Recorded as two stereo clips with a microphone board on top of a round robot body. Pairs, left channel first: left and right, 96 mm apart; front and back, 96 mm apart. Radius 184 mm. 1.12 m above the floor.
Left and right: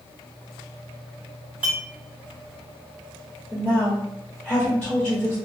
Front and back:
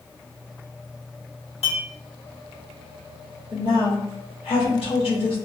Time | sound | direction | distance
1.6 | a clink | 15° right | 1.4 m
3.5 | a woman speaking | 5° right | 1.3 m